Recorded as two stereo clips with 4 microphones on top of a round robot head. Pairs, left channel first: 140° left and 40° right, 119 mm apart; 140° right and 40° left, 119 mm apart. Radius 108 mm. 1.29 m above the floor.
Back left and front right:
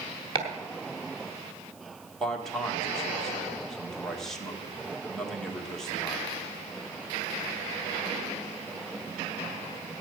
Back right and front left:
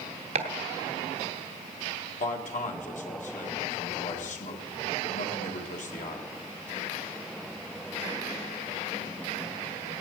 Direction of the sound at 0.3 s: 5° left.